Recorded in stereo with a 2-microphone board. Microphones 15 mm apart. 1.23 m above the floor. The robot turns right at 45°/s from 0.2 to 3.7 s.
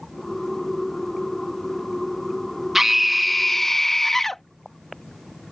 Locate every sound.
2.8 s a scream: 30° right; by 4.4 s 15° left